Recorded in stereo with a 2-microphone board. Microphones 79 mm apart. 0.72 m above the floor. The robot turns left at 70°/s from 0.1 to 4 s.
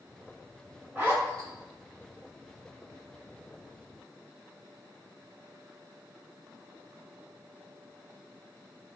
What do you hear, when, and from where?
0.9 s a zipper: 20° right (ahead or behind), 1.1 m; by 1.5 s 50° right (ahead or behind), 1.1 m